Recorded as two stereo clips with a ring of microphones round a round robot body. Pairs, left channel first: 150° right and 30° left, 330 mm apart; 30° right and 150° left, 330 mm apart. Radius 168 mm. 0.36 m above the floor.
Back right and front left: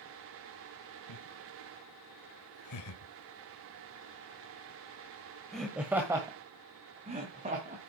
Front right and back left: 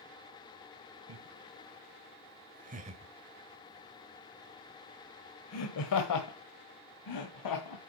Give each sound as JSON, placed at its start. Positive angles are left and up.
{"t": 1.1, "sound": "laughter", "azimuth_deg": -170, "distance_m": 2.0}